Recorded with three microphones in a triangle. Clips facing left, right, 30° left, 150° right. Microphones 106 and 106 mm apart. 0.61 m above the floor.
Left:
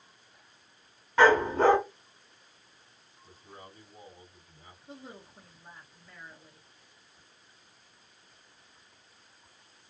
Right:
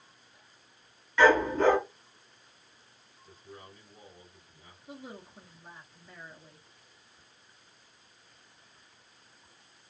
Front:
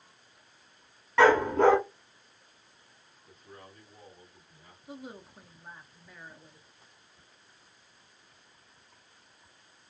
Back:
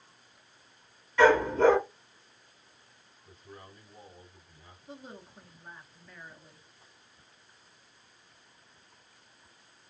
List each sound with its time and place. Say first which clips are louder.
1.2 s a dog barking: left 1 dB, front 1 dB; 45° left, 1.4 m
3.2 s a man speaking: even, back 1 dB; 130° left, 1.7 m
4.9 s a woman speaking: right 2 dB, front 3 dB; 30° right, 0.5 m